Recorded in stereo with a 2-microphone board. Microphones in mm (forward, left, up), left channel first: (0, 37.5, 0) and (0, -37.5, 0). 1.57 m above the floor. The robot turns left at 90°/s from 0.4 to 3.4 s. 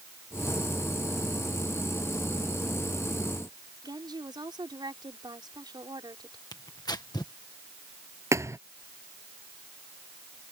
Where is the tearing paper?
70° left (ahead or behind).